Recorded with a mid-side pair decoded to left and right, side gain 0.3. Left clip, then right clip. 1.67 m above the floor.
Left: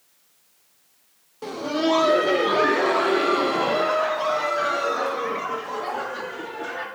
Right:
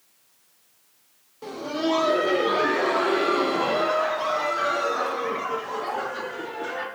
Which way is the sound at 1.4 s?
45° left.